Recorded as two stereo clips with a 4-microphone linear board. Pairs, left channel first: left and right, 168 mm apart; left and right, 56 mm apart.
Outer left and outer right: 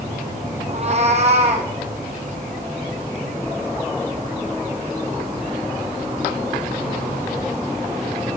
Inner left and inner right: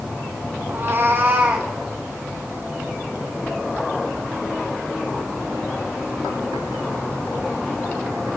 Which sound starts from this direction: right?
A cat meowing, at 0.7 s.